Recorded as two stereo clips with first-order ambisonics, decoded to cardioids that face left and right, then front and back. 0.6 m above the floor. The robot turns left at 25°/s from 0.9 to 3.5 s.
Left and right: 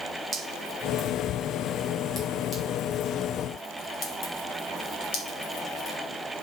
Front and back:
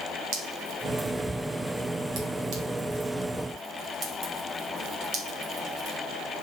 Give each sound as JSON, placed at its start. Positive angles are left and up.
{"t": 0.3, "sound": "dripping", "azimuth_deg": -165, "distance_m": 3.0}